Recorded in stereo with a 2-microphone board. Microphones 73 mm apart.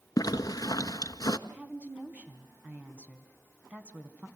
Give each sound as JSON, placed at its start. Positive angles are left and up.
{"t": 0.2, "sound": "a zipper", "side_deg": 55, "distance_m": 1.1}
{"t": 1.5, "sound": "a woman speaking", "side_deg": -20, "distance_m": 2.0}